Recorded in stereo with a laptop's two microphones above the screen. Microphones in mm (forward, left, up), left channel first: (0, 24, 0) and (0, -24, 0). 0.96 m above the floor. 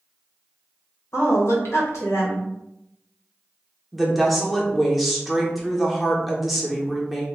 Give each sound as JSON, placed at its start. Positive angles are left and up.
{"t": 1.1, "sound": "a woman speaking", "side_deg": 65, "distance_m": 1.0}
{"t": 3.9, "sound": "a woman speaking", "side_deg": 0, "distance_m": 0.8}